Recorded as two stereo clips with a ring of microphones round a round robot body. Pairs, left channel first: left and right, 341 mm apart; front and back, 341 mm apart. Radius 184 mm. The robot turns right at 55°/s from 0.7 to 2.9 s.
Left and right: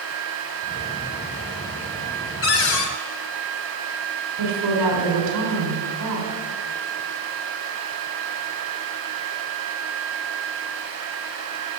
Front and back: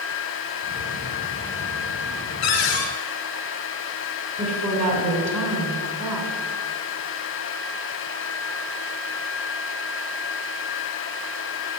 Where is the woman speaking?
110° right, 3 m.